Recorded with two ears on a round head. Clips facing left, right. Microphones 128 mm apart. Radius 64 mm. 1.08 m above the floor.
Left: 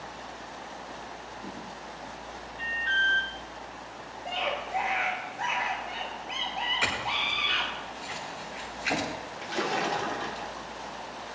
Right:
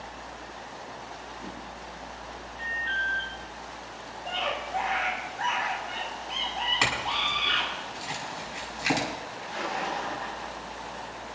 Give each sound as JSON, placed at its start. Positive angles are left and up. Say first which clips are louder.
{"t": 2.6, "sound": "an alarm", "louder": "left 3 dB", "side_deg": 65, "distance_m": 3.5}
{"t": 4.2, "sound": "a scream", "louder": "even", "side_deg": 10, "distance_m": 5.0}
{"t": 6.8, "sound": "a clink", "louder": "right 2 dB", "side_deg": -85, "distance_m": 6.5}
{"t": 9.4, "sound": "a splash", "louder": "left 3 dB", "side_deg": 80, "distance_m": 1.8}